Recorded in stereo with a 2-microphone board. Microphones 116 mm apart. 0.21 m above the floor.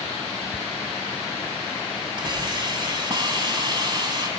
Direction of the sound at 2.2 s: 40° right (ahead or behind).